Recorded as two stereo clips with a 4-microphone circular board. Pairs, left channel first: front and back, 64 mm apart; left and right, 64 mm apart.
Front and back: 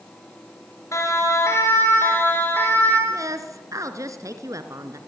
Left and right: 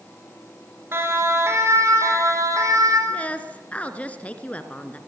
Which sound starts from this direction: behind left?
A woman speaking, at 3.1 s.